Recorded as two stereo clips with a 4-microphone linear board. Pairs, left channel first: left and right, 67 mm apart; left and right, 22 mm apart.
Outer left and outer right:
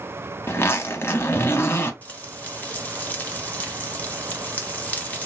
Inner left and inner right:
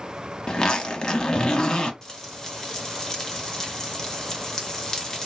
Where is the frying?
25° left (ahead or behind), 0.9 m.